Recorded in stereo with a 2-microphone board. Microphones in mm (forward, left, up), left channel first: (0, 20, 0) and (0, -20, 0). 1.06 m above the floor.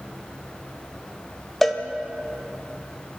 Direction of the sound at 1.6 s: 5° left (ahead or behind).